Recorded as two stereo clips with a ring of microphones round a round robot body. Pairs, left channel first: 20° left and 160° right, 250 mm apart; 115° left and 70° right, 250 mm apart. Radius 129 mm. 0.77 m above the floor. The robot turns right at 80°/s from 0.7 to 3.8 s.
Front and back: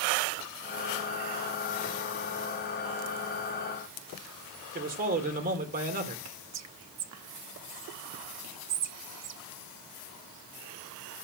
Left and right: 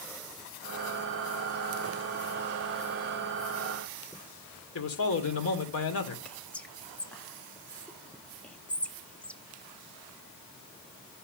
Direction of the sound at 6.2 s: 160° right.